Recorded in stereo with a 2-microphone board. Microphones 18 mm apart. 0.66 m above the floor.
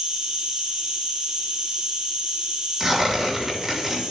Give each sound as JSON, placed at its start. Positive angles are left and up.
{"t": 0.0, "sound": "an insect", "side_deg": -40, "distance_m": 3.0}
{"t": 2.8, "sound": "tearing paper", "side_deg": -10, "distance_m": 3.0}